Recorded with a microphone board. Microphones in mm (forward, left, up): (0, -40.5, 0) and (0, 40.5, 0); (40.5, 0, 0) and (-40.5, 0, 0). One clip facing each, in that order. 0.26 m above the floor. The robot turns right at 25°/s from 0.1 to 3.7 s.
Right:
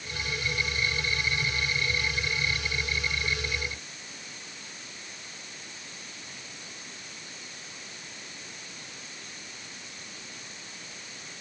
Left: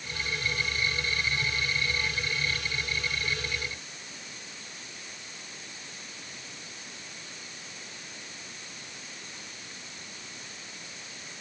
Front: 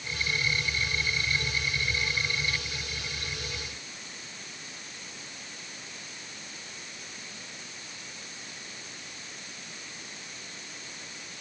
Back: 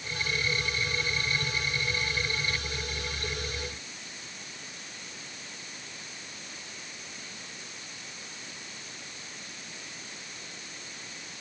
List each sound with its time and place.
Only background noise.